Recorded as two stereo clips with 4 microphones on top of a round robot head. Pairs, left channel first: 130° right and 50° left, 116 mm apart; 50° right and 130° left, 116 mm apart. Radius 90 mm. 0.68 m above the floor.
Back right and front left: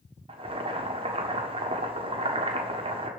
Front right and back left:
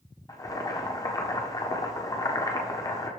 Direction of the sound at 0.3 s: 10° left.